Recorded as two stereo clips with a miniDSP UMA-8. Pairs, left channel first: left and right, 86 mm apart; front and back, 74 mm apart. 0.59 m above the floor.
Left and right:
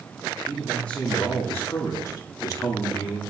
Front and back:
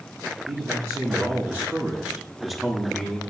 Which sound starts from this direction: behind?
A man speaking, at 0.5 s.